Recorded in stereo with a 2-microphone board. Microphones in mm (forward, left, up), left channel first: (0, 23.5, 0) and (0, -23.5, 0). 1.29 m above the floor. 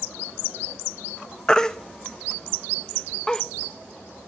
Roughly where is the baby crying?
Centre.